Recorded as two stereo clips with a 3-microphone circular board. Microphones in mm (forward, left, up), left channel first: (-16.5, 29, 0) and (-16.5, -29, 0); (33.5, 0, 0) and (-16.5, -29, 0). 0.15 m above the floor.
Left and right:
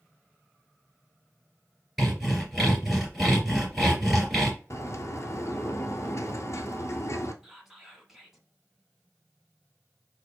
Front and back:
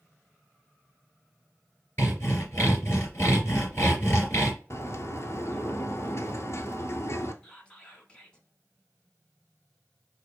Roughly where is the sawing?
Ahead.